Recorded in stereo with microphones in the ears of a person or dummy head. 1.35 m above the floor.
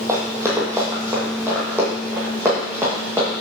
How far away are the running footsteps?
About 1.9 m.